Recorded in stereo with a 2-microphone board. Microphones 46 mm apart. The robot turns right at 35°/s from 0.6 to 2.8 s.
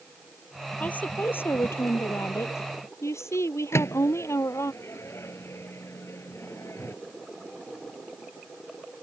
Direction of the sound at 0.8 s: 30° left.